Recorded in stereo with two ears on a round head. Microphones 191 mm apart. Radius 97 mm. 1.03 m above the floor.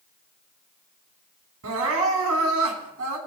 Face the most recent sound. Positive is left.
turn(degrees=-75)  # may be behind; listen again after turning